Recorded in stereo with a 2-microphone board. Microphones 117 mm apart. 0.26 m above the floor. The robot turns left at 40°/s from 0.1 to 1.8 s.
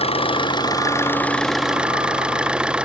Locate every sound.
0.0 s an engine running: 60° left; by 2.9 s 10° right